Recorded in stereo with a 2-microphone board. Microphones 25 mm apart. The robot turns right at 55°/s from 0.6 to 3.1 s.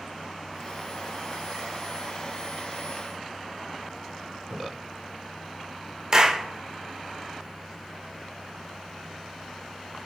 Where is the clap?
30° right (ahead or behind), 0.6 m.